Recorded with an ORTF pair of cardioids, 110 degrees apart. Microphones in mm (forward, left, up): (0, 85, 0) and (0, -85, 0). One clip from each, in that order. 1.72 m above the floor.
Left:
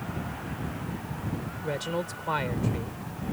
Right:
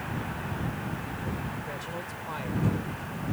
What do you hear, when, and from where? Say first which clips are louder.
1.6 s a man speaking: left 5 dB; 55° left